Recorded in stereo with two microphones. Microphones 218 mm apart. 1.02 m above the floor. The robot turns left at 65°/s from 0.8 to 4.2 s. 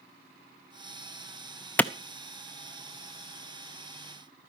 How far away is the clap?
About 0.6 m.